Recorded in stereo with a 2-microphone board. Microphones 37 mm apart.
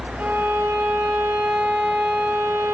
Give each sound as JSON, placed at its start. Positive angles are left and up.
{"t": 0.2, "sound": "a violin", "side_deg": -70, "distance_m": 3.0}